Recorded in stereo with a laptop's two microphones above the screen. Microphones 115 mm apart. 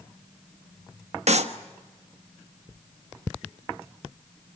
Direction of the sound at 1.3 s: 70° right (ahead or behind).